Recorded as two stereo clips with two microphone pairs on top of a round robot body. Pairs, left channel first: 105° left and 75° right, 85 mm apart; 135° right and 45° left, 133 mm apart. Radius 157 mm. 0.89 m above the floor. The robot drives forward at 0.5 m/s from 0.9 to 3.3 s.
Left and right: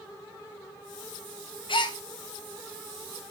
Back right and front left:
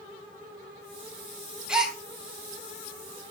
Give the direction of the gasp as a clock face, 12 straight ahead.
8 o'clock.